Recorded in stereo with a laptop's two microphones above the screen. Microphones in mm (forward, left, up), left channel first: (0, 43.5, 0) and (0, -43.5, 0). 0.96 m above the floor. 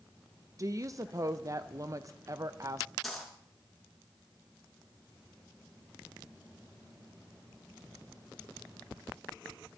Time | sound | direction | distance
0.6 | a woman speaking | 40° right (ahead or behind) | 0.7 m
3.0 | a dropped coin | centre (ahead or behind) | 5 m